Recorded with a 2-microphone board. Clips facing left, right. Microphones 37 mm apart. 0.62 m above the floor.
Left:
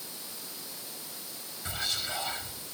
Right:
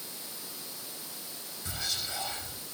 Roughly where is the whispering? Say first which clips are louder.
Left 3 dB; left.